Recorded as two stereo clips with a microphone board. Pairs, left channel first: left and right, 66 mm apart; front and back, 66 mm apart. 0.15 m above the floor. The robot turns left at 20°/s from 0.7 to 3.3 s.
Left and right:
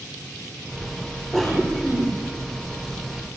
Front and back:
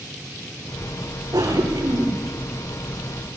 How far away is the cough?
About 9 m.